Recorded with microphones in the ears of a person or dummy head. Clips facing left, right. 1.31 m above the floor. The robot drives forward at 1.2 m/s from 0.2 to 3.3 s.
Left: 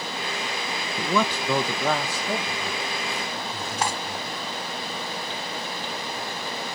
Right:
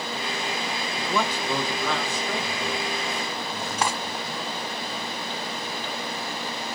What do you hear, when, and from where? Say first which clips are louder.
1.0 s a man speaking: left 3 dB; 70° left (ahead or behind), 0.8 m; by 4.5 s 15° left (ahead or behind), 2.5 m
3.8 s cutlery clinking: right 1 dB; 60° right (ahead or behind), 0.7 m